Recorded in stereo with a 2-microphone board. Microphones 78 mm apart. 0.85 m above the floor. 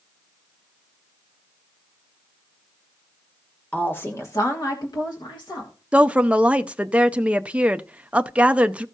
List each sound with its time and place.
3.7 s a woman speaking: 20° left (ahead or behind), 1.5 m; by 5.7 s 75° left (ahead or behind), 2.5 m
5.9 s a woman speaking: 15° right (ahead or behind), 0.6 m